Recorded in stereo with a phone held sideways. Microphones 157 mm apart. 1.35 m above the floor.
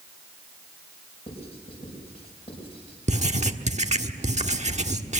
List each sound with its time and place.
1.3 s writing: 40° left (ahead or behind), 6.5 m
3.1 s writing: 45° right (ahead or behind), 1.3 m